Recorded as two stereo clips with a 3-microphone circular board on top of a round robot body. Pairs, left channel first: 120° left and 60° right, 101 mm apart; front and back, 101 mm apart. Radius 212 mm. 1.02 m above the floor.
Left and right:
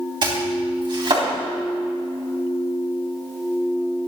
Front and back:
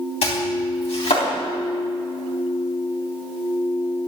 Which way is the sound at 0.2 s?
20° right.